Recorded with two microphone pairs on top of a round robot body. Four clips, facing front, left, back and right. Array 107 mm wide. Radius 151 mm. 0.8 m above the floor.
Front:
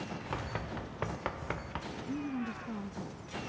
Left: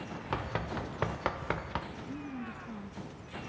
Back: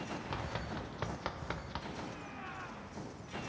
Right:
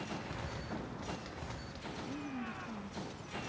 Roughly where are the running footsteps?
Left.